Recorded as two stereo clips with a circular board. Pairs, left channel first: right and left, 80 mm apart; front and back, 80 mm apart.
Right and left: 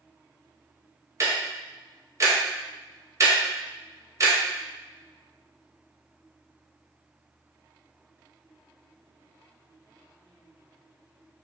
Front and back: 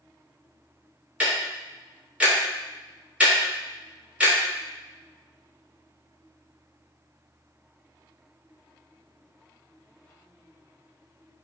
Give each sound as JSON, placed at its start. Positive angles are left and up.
{"t": 1.2, "sound": "ticking", "azimuth_deg": 115, "distance_m": 0.7}